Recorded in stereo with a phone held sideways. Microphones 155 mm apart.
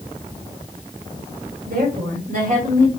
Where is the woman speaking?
75° right (ahead or behind), 2.5 m; by 2.9 s 50° right (ahead or behind), 2 m.